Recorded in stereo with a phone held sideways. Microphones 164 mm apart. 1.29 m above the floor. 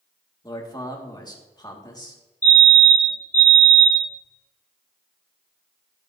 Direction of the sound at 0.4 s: 25° left (ahead or behind).